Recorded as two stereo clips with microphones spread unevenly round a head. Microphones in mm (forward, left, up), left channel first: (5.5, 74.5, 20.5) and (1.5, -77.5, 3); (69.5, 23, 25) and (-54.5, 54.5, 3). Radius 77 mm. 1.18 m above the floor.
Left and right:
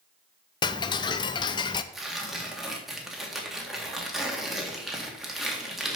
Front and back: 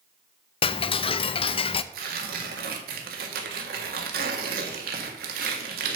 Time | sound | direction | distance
0.6 | ticking | 30° left | 0.5 m
1.9 | tearing paper | straight behind | 1.6 m